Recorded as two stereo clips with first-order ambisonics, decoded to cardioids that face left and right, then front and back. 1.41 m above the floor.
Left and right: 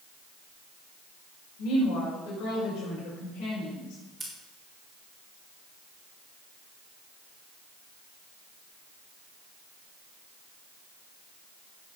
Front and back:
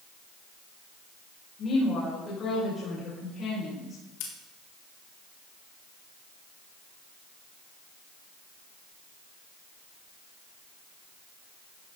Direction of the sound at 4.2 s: 10° right.